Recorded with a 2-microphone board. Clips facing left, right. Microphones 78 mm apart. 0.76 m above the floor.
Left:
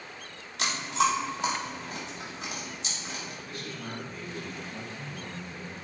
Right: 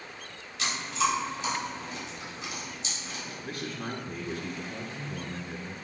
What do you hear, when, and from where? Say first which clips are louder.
0.6 s chewing: left 2 dB; 70° left (ahead or behind), 3 m
3.4 s a man speaking: right 3 dB; 55° right (ahead or behind), 1.7 m